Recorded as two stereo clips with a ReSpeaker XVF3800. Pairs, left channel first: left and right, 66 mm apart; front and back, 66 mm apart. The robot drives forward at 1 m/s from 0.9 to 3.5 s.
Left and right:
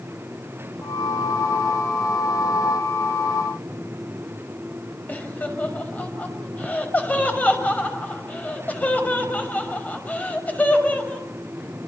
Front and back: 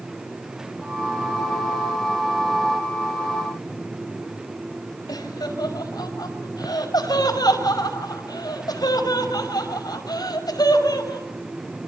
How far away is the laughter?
About 5.5 m.